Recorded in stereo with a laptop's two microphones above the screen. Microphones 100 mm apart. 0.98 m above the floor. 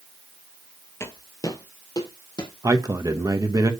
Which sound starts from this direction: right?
A man speaking, at 2.6 s.